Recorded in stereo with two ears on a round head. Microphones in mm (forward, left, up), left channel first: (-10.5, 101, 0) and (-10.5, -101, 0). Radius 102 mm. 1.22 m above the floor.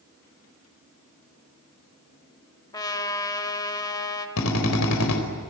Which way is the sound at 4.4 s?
85° left.